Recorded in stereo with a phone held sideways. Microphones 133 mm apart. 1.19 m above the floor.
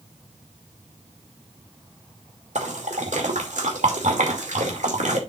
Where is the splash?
75° right (ahead or behind), 2.5 m.